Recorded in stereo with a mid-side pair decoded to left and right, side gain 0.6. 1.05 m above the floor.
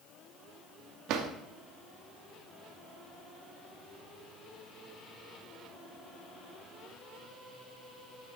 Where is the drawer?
65° right, 1.1 m.